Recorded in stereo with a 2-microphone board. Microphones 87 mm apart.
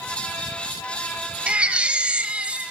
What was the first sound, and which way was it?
A baby crying, 15° right (ahead or behind).